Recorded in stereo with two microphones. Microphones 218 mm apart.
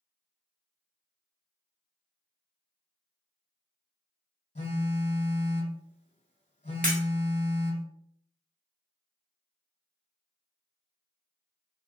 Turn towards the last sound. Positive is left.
turn(degrees=-40)  # may be behind; listen again after turning